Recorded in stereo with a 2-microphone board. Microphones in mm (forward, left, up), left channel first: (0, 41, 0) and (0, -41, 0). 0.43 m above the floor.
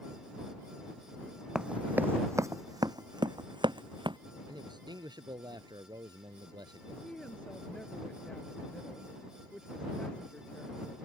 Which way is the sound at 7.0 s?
15° left (ahead or behind).